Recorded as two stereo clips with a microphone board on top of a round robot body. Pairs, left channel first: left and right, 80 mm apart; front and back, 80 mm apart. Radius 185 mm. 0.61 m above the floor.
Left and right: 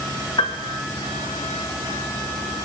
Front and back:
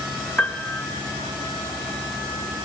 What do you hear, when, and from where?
0.4 s a piano: 70° left, 4 m